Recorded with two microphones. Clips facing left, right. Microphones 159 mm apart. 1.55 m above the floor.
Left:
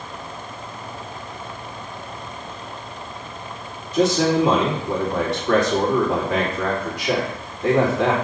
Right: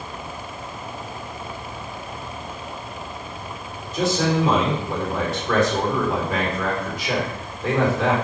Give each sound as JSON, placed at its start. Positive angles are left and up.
{"t": 3.9, "sound": "a man speaking", "side_deg": 80, "distance_m": 3.5}